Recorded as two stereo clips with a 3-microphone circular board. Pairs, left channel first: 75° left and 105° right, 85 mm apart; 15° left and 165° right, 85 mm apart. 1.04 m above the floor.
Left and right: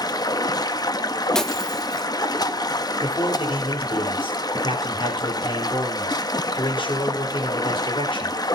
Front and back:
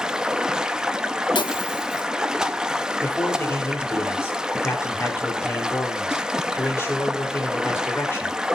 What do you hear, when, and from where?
0.0 s running water: 110° left, 0.8 m
1.4 s breaking glass: 10° right, 0.9 m
3.0 s a man speaking: 75° left, 4.5 m